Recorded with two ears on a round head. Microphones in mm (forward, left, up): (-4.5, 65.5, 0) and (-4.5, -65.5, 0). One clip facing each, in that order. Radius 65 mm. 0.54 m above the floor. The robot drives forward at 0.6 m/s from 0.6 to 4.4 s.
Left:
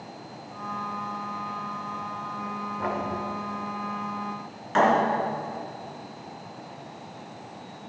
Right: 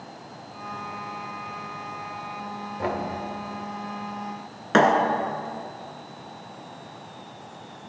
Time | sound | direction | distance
2.8 | knocking | 35° right (ahead or behind) | 1.7 m
4.7 | a thud | 85° right | 2.0 m